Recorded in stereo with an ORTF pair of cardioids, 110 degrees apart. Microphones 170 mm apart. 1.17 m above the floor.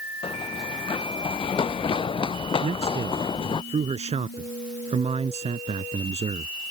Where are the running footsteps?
30° left.